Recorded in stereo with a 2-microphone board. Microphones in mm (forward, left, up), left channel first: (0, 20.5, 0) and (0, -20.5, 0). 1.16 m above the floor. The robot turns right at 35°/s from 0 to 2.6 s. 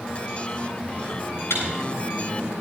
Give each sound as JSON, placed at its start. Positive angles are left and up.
{"t": 1.5, "sound": "a microwave", "side_deg": 80, "distance_m": 7.0}